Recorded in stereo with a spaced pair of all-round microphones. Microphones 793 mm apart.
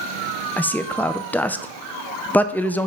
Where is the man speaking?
5° left (ahead or behind), 0.5 m.